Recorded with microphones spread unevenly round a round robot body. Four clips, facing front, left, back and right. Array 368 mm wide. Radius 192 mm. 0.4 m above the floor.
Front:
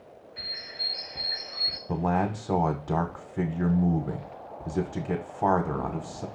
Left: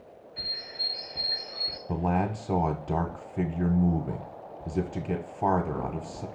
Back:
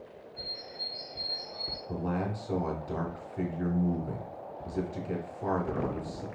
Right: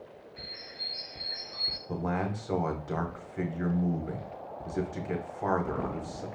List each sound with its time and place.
0.4 s a bird: 10° left, 1.0 m
1.9 s a man speaking: 45° left, 1.1 m